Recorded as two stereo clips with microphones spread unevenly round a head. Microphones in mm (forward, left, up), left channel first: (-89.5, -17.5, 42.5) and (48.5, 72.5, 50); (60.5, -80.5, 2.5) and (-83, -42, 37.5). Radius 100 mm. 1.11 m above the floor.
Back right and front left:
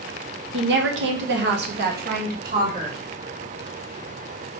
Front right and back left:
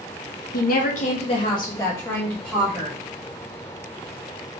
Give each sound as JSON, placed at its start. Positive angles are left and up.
{"t": 0.5, "sound": "a woman speaking", "azimuth_deg": 15, "distance_m": 1.0}